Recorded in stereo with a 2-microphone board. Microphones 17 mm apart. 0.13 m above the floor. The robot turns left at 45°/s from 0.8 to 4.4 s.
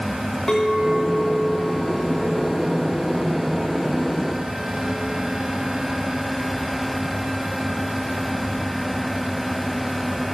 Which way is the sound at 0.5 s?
35° left.